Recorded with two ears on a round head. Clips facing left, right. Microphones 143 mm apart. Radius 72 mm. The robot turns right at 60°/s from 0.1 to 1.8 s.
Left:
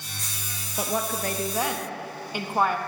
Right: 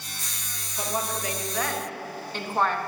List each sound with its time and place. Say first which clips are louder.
0.8 s a woman speaking: left 2 dB; 110° left, 0.8 m; by 2.8 s 170° left, 0.8 m